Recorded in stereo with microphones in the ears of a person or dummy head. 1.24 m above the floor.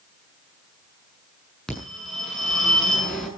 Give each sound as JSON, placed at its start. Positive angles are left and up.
{"t": 1.7, "sound": "a phone ringing", "side_deg": 5, "distance_m": 7.0}